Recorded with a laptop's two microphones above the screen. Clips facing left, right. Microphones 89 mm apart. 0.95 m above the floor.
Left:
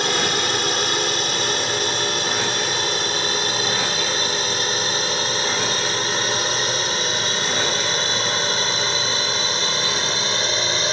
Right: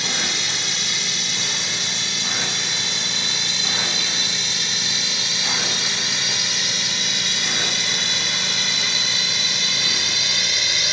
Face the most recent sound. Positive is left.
turn(degrees=35)  # may be behind; listen again after turning